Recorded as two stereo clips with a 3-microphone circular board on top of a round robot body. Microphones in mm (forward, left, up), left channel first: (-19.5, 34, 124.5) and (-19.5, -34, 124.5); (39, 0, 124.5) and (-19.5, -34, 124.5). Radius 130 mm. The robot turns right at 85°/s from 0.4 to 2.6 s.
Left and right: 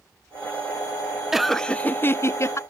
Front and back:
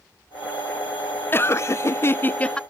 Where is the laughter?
10° right; by 2.6 s 100° left.